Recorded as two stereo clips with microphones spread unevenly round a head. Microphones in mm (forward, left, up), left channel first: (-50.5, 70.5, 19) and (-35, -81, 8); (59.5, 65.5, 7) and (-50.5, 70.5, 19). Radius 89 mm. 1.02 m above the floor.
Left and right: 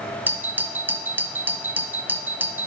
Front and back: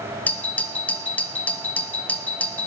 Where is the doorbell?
40° right, 1.4 m.